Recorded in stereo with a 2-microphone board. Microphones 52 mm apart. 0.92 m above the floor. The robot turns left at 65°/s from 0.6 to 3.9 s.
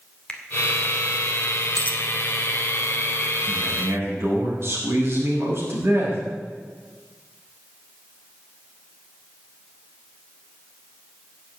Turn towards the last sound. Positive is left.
turn(degrees=-50)  # may be behind; listen again after turning